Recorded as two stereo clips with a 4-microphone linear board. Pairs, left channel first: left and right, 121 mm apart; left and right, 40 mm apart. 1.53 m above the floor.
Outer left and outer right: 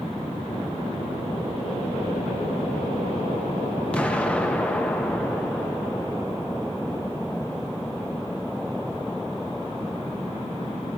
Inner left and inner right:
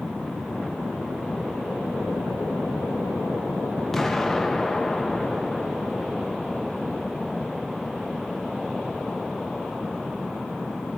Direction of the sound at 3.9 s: 10° left (ahead or behind).